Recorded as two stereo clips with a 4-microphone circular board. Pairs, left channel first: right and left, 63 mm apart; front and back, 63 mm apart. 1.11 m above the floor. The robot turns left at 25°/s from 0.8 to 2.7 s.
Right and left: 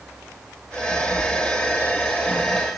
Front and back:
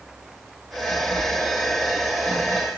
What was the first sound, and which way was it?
A sliding door, 145° right.